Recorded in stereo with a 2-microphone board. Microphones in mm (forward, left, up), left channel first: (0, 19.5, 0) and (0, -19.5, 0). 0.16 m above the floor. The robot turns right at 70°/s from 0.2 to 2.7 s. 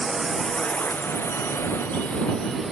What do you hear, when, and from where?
0.0 s a drone: 5° right (ahead or behind)